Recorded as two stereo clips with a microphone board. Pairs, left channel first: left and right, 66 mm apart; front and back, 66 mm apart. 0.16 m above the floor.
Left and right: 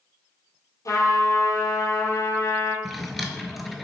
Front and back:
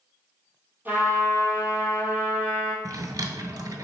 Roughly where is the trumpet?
Behind left.